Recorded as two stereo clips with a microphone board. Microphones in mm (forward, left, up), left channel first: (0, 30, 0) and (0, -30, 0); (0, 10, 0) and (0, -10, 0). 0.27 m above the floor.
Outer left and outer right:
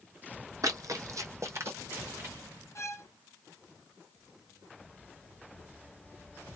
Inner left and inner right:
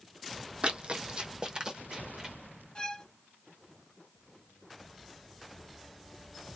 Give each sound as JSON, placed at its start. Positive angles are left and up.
{"t": 0.6, "sound": "running footsteps", "side_deg": -70, "distance_m": 0.6}
{"t": 2.8, "sound": "a violin", "side_deg": 50, "distance_m": 0.9}